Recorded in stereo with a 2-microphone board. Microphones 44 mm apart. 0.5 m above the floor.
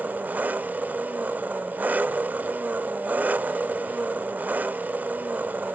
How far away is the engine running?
About 0.7 m.